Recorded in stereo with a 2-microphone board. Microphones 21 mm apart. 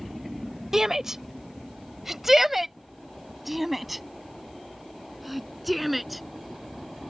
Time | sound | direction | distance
0.7 | a shout | 25° right (ahead or behind) | ?